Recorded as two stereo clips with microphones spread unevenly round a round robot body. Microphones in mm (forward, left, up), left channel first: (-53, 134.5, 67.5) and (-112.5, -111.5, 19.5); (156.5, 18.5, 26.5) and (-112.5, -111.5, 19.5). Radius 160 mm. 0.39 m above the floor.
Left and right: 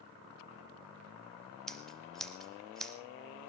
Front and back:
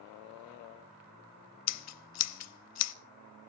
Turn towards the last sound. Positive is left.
turn(degrees=-15)